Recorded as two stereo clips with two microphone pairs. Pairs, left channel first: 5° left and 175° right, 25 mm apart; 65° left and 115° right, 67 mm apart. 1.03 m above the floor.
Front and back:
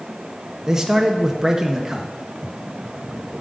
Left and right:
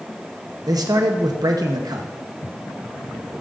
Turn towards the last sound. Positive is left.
turn(degrees=-105)